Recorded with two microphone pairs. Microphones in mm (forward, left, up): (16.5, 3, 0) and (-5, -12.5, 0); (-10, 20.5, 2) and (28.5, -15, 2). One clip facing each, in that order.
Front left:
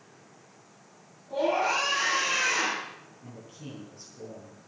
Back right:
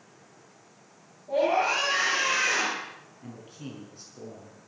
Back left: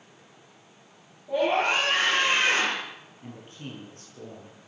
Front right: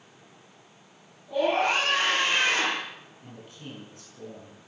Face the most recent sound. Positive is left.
turn(degrees=-170)